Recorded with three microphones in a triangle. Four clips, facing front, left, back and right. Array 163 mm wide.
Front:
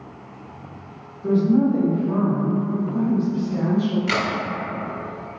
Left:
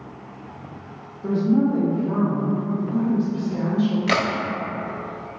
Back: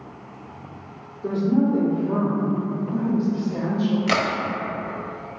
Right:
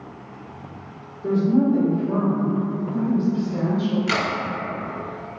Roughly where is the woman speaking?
Behind left.